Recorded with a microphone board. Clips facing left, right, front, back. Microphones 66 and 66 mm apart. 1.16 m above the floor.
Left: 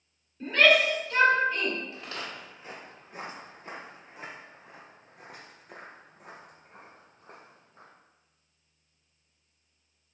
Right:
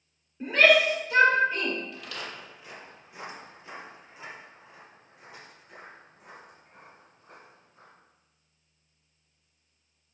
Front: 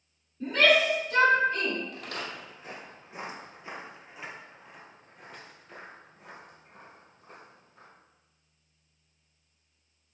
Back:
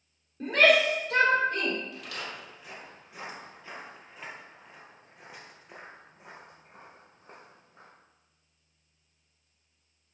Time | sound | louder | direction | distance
0.4 | a shout | right 1 dB, back 1 dB | 165° right | 3.5 m
1.9 | footsteps | even, front 2 dB | 35° left | 2 m